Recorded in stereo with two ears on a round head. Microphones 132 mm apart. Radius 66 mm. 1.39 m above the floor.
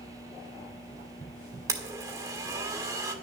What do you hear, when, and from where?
1.7 s a blender: 20° right (ahead or behind), 1.5 m